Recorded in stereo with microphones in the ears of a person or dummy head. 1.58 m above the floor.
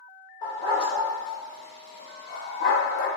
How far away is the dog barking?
About 2.0 m.